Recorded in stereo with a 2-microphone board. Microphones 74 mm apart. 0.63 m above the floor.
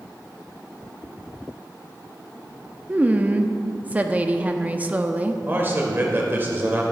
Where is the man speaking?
30° right (ahead or behind), 2.0 m.